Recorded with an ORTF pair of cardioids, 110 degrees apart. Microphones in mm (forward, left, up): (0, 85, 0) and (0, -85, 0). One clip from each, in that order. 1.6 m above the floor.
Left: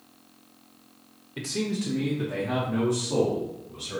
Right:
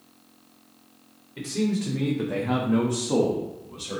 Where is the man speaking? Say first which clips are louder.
Right 2 dB; 30° left, 0.9 m; by 4.0 s 70° right, 2.0 m.